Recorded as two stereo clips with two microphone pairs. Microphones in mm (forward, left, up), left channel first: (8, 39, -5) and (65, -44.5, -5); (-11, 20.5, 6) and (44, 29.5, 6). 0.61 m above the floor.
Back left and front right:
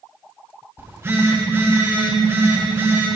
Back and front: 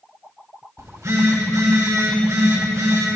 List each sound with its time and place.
0.8 s a phone buzzing: 5° left, 2.5 m